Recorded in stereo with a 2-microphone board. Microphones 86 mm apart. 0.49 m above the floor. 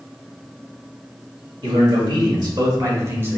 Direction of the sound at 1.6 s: 70° right (ahead or behind).